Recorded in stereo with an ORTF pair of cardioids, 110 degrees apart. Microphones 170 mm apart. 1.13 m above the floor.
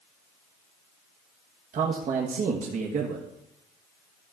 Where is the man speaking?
50° right, 1.5 m.